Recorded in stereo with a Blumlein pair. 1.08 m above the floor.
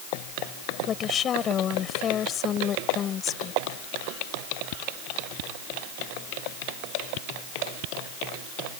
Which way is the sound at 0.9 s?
25° left.